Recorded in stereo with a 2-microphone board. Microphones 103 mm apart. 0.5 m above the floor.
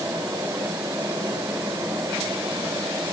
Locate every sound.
Only background noise.